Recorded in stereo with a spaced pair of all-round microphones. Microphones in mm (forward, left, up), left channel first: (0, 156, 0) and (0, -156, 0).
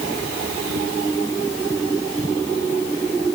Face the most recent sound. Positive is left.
No sound to turn to.